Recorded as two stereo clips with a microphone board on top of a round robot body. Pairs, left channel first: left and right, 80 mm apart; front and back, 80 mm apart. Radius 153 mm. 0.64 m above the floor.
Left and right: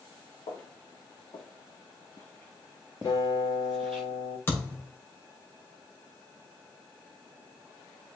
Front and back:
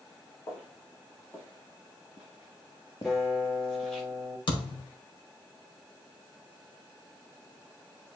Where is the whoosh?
I don't hear a whoosh.